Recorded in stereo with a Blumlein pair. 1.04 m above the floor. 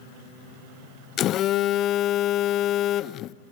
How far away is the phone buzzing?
About 0.5 m.